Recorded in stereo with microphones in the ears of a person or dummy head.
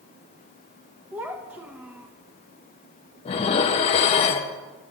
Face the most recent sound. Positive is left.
turn(degrees=30)  # may be behind; listen again after turning